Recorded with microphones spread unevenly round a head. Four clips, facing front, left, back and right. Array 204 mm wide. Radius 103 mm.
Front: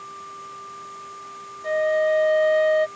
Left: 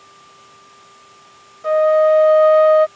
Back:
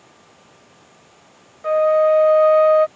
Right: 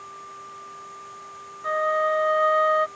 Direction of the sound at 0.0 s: 20° right.